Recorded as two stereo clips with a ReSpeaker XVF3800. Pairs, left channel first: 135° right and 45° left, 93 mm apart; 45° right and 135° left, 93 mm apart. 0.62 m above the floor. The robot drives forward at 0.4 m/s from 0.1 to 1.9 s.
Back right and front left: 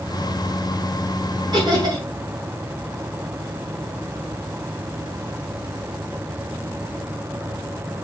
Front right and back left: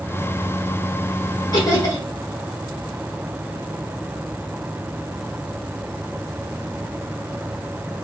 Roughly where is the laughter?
Ahead.